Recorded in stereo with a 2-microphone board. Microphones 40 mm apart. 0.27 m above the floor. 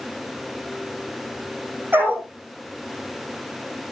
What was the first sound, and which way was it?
A dog barking, 65° right (ahead or behind).